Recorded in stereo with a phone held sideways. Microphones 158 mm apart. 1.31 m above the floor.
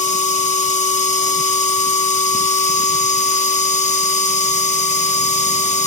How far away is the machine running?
About 1.2 m.